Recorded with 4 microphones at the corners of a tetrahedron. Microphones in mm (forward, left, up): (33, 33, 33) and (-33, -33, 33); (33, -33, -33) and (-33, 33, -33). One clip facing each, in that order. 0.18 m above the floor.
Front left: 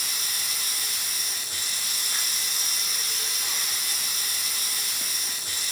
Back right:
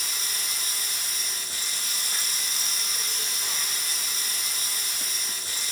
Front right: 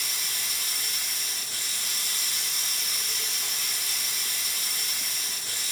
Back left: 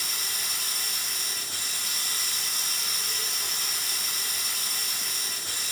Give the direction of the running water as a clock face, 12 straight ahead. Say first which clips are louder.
Even, back left 1 dB; 6 o'clock.